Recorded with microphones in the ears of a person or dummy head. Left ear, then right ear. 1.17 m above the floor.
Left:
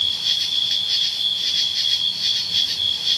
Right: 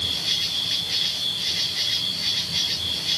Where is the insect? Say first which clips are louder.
Left 4 dB; 30° left (ahead or behind), 2.5 m.